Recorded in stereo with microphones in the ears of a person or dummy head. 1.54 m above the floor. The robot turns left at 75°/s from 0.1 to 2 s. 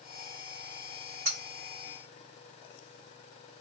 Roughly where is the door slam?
No door slam in this recording.